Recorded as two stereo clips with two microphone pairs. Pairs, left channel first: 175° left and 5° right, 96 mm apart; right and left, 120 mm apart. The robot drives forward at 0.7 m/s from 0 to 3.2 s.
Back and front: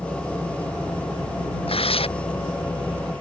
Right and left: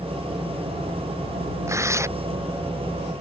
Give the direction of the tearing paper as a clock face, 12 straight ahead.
7 o'clock.